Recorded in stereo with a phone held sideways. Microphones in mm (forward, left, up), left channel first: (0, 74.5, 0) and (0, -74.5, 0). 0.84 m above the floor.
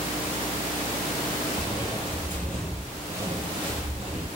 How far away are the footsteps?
About 1.1 m.